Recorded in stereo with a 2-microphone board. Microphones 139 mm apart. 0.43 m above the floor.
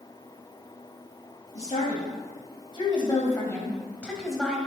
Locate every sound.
1.6 s a woman speaking: 55° left (ahead or behind), 3 m; by 4.6 s centre (ahead or behind), 2.5 m